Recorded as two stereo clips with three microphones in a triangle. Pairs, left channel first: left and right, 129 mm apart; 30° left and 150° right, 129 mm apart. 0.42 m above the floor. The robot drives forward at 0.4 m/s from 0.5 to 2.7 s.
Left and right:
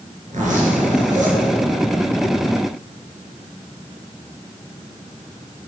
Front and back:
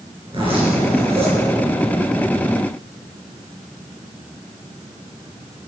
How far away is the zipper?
About 5 m.